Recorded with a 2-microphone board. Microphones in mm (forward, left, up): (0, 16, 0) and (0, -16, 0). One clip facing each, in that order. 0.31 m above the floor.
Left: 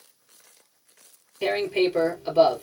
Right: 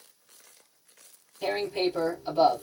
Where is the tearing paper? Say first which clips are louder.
Left 5 dB; 75° left (ahead or behind), 2 m.